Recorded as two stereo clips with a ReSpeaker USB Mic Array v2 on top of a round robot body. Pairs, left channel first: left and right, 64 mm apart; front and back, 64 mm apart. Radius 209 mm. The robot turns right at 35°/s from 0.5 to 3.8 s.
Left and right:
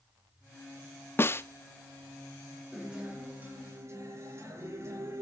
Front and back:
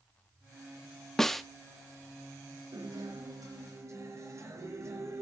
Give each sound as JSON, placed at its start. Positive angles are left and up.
{"t": 1.2, "sound": "a snare drum", "azimuth_deg": 80, "distance_m": 1.2}
{"t": 2.7, "sound": "a guitar", "azimuth_deg": -175, "distance_m": 5.5}